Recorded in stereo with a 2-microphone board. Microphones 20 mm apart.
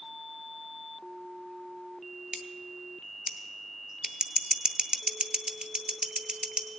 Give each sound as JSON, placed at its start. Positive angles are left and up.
{"t": 2.3, "sound": "scissors", "side_deg": -60, "distance_m": 0.6}